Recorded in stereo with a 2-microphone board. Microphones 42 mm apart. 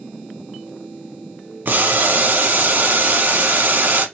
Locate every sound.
1.6 s boiling: 55° right (ahead or behind), 0.8 m